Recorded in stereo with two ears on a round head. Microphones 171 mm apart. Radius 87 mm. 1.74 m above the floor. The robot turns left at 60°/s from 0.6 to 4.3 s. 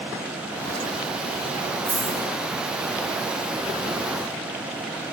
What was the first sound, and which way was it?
A dropped coin, 20° right (ahead or behind).